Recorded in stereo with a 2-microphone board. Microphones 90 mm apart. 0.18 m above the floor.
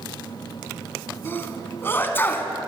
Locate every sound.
1.2 s a sneeze: 25° left (ahead or behind), 1.3 m